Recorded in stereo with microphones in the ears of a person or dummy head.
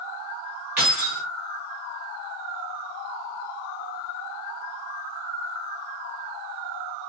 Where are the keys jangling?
10° right (ahead or behind), 1.1 m.